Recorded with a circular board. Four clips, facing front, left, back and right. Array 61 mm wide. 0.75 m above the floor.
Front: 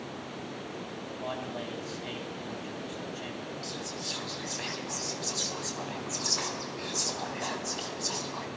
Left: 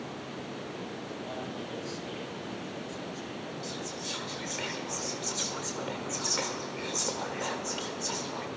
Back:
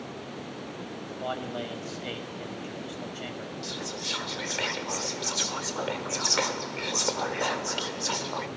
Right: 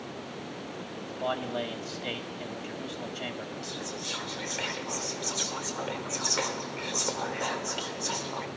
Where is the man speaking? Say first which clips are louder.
Right 5 dB, back 4 dB; 115° right, 3.5 m.